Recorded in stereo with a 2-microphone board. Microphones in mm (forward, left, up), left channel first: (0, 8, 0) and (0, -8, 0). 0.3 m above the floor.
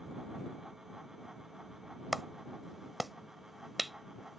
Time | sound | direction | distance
2.1 | a clap | 5° right (ahead or behind) | ?